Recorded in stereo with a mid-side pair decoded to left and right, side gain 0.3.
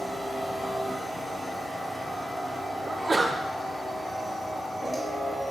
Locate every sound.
0.0 s a machine running: 40° left, 1.0 m
2.9 s a sneeze: 25° right, 0.7 m